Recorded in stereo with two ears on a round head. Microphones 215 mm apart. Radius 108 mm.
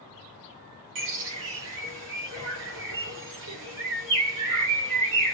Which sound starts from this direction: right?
A bird, at 0.9 s.